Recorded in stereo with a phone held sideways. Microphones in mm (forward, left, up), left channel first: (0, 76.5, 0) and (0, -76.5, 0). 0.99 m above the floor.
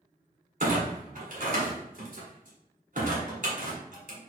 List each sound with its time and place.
0.6 s a clunk: 60° right (ahead or behind), 1.7 m